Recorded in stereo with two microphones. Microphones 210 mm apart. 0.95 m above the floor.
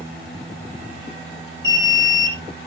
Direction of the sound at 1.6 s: 70° left (ahead or behind).